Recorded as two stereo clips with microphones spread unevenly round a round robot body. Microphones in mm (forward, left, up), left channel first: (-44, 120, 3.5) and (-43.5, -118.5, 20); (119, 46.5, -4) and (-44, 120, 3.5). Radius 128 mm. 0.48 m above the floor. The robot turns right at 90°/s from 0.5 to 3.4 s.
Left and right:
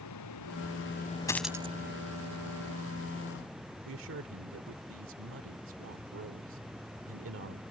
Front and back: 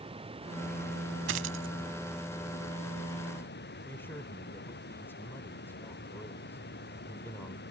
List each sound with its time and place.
0.0 s running water: 100° left; by 7.7 s straight ahead
1.3 s a dropped coin: 165° left; by 1.7 s 150° right
3.9 s a man speaking: 100° right